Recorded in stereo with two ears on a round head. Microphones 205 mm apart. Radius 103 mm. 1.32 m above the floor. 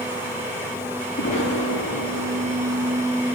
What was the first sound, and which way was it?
An explosion, 30° left (ahead or behind).